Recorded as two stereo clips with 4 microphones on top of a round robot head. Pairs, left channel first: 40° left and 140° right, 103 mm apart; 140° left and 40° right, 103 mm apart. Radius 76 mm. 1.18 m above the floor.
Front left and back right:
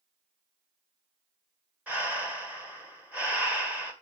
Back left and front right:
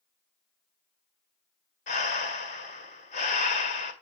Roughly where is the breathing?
Behind left.